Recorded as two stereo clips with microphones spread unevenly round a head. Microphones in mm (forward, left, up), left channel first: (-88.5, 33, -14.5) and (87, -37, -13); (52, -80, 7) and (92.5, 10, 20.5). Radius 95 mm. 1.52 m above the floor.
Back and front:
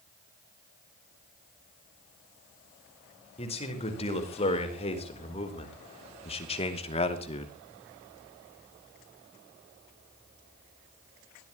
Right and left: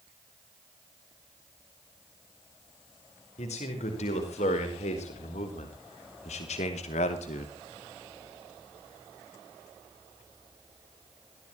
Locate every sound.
3.4 s a man speaking: 140° right, 5.5 m